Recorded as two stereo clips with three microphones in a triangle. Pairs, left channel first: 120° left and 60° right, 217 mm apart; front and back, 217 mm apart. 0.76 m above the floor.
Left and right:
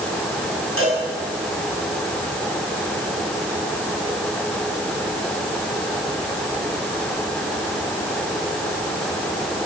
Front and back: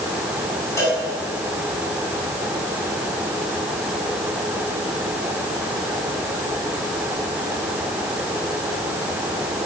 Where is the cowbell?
75° right, 7.5 m.